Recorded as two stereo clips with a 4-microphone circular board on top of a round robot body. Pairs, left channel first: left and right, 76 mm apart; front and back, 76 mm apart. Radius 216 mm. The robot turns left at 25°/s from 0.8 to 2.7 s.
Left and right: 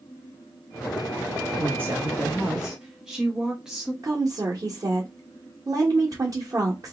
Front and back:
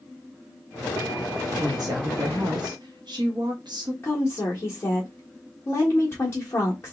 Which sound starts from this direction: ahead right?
A woman speaking, at 4.0 s.